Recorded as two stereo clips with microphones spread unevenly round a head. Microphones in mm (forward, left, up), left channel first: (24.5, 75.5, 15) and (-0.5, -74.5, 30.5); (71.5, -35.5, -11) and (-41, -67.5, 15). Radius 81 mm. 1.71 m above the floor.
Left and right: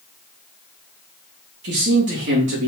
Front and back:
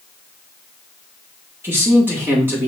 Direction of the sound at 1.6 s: 95° right.